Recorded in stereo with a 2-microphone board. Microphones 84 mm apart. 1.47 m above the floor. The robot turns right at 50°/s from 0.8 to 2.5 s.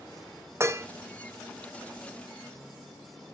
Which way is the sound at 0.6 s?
30° right (ahead or behind).